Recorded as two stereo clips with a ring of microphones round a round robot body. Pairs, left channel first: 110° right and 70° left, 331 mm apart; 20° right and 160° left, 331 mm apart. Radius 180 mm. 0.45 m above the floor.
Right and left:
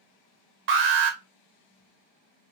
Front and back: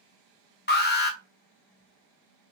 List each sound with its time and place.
0.7 s an alarm: 30° left, 0.9 m